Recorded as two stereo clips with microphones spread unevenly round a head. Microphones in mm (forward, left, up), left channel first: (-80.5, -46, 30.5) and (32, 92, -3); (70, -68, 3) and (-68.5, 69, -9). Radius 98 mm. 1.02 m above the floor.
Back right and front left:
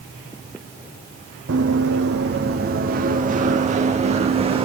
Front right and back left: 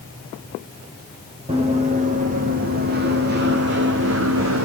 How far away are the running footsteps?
About 3 m.